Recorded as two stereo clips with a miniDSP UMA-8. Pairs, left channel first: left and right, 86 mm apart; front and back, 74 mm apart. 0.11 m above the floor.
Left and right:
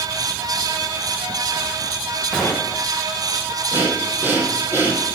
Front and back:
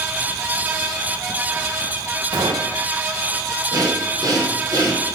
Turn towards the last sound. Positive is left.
turn(degrees=-155)